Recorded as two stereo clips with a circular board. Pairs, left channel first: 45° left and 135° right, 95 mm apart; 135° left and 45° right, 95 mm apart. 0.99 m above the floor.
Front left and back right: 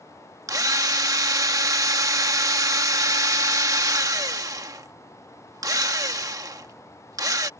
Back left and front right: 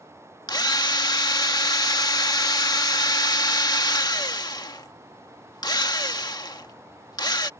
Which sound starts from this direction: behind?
A drill, at 0.5 s.